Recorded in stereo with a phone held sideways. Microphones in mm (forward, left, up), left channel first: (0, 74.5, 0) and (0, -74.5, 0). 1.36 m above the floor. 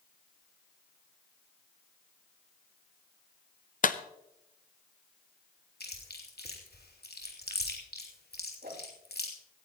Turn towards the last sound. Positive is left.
turn(degrees=-75)  # may be behind; listen again after turning